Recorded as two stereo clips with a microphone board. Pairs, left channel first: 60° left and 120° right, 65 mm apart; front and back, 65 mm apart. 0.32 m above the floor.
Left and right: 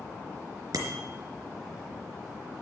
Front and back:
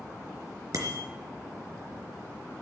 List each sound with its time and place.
0.7 s a bicycle bell: 150° right, 3.5 m